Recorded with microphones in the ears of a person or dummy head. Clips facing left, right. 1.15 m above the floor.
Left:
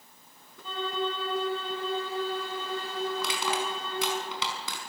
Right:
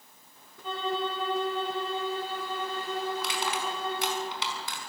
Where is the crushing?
70° left (ahead or behind), 5.5 m.